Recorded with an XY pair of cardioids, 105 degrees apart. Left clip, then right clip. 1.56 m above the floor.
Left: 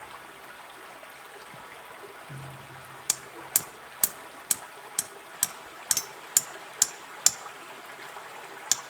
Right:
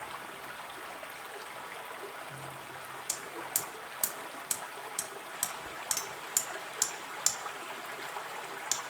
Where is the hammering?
50° left, 0.6 m.